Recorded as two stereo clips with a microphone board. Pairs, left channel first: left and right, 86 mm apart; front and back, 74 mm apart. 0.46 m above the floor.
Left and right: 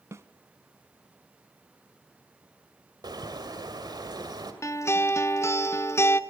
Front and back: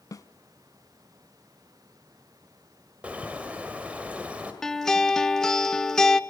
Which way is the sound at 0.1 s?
35° right.